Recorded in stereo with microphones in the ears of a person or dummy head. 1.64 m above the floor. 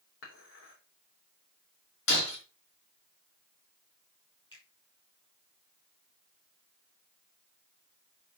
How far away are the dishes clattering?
About 3.5 m.